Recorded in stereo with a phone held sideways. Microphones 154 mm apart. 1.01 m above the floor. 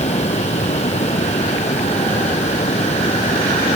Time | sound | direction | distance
0.0 | running water | 45° left (ahead or behind) | ?